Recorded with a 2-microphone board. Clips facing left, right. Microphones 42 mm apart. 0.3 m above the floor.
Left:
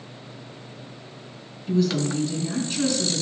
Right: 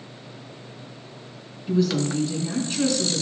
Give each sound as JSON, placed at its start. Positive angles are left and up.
{"t": 1.7, "sound": "a woman speaking", "side_deg": -5, "distance_m": 2.5}